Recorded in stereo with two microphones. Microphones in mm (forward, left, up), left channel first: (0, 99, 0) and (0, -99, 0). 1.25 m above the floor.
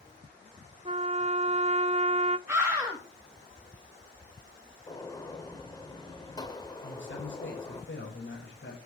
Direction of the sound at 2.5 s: 15° right (ahead or behind).